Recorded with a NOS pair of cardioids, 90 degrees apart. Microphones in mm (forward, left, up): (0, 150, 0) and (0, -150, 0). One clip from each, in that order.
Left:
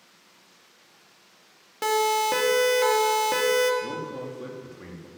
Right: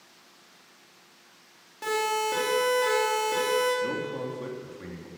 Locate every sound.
1.8 s a siren: 65° left, 3 m
3.8 s a man speaking: 5° right, 4 m